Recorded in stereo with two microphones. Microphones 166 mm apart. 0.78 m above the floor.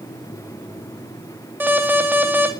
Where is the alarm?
15° right (ahead or behind), 2.5 m.